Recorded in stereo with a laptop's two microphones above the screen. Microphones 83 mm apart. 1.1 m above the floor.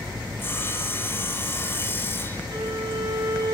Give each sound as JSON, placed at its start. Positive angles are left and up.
{"t": 0.4, "sound": "sawing", "side_deg": 25, "distance_m": 1.0}
{"t": 2.5, "sound": "a violin", "side_deg": -60, "distance_m": 2.0}